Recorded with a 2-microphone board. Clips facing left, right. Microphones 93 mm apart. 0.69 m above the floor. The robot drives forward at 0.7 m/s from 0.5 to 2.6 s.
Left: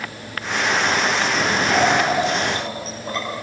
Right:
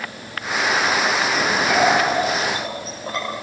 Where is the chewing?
I don't hear chewing.